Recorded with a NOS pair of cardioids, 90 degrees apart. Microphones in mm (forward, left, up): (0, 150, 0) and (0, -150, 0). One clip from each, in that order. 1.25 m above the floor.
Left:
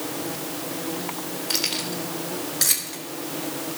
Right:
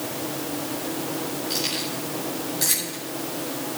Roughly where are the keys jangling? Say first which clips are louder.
Left 3 dB; ahead left.